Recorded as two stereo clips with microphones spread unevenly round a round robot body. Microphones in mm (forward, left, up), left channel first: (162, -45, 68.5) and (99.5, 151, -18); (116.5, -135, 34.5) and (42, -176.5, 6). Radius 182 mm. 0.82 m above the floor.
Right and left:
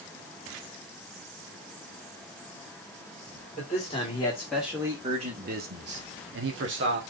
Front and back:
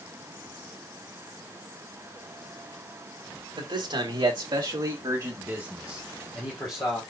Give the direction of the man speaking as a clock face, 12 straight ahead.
5 o'clock.